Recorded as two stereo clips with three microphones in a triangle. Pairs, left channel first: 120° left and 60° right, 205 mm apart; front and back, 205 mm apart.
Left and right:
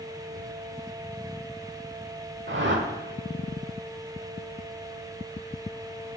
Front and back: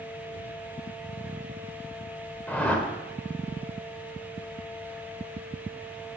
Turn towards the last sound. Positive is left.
turn(degrees=-80)